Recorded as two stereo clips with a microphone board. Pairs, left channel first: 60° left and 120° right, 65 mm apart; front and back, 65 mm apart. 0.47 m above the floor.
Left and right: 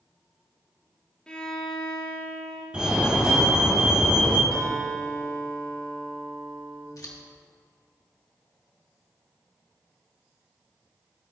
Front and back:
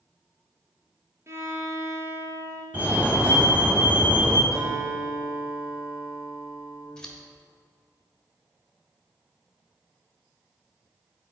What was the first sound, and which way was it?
A violin, 135° left.